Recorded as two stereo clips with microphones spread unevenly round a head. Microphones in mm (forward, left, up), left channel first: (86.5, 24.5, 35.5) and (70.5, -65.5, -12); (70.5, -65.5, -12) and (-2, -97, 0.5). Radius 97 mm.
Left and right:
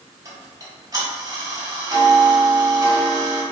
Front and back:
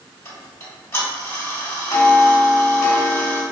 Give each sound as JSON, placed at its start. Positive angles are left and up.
{"t": 0.2, "sound": "ticking", "azimuth_deg": -35, "distance_m": 1.6}